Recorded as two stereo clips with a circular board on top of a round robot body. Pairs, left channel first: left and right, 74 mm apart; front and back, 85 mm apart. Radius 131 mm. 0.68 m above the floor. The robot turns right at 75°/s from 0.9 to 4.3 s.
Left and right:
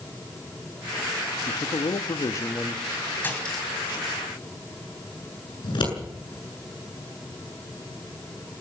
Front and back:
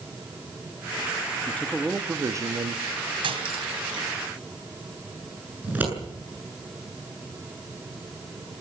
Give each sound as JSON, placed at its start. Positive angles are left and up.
{"t": 1.5, "sound": "a man speaking", "azimuth_deg": 65, "distance_m": 1.3}
{"t": 3.2, "sound": "cutlery clinking", "azimuth_deg": 155, "distance_m": 3.0}
{"t": 5.6, "sound": "scissors", "azimuth_deg": 110, "distance_m": 7.5}